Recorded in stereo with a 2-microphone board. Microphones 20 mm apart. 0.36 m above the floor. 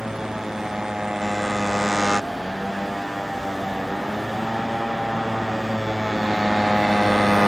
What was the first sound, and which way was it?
A motorcycle, 35° right (ahead or behind).